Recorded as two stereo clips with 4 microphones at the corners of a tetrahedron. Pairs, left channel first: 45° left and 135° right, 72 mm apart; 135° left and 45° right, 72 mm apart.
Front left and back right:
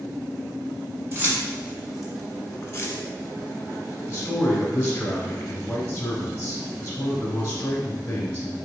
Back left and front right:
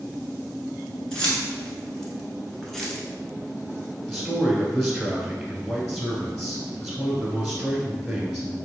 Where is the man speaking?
50° left, 1.0 m.